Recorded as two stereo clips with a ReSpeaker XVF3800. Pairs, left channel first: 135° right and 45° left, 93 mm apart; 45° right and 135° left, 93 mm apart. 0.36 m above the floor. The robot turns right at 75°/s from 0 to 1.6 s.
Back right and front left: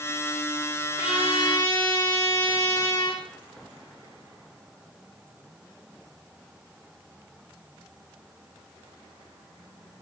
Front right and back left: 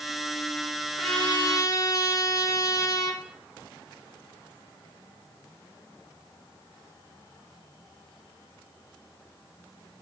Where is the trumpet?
140° right, 5 m; by 3.2 s 95° right, 5 m.